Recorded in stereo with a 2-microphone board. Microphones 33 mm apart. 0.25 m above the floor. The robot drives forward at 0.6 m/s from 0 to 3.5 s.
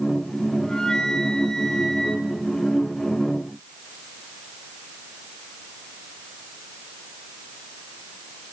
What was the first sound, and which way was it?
A flute, 25° left (ahead or behind).